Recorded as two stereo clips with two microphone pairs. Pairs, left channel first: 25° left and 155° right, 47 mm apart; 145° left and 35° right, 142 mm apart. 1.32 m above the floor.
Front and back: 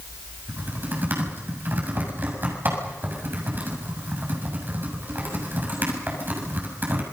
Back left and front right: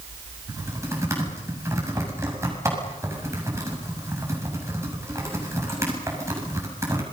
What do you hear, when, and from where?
0.5 s typing on a keyboard: 105° right, 7 m